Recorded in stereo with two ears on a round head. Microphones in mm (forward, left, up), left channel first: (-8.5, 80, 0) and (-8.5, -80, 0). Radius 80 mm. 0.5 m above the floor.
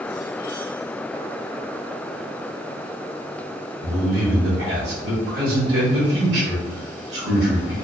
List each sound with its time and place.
3.8 s a man speaking: 65° right (ahead or behind), 1.6 m